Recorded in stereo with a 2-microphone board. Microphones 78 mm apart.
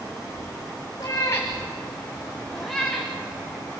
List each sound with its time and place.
1.0 s a cat meowing: 40° left (ahead or behind), 4 m; by 3.1 s centre (ahead or behind), 4.5 m